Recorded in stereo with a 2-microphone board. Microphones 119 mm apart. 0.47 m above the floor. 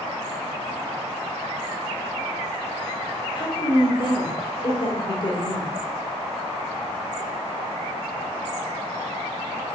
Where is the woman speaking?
45° left (ahead or behind), 1.5 m.